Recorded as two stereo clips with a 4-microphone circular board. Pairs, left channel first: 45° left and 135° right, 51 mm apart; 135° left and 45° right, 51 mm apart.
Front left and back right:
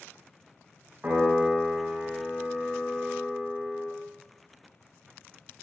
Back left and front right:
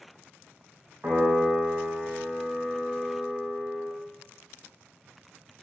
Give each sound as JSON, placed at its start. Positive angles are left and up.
{"t": 1.0, "sound": "a piano", "azimuth_deg": -85, "distance_m": 3.0}